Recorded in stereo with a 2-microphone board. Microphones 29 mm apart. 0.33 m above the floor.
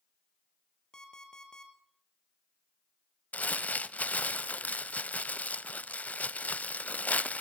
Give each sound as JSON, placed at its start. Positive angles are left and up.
{"t": 0.9, "sound": "an alarm clock", "side_deg": 25, "distance_m": 3.5}
{"t": 3.3, "sound": "crumpling", "side_deg": 60, "distance_m": 0.6}